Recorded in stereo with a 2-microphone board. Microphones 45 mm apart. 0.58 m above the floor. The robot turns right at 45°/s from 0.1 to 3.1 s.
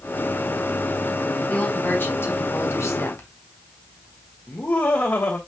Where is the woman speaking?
25° left, 3.5 m; by 3.3 s 100° left, 3.5 m.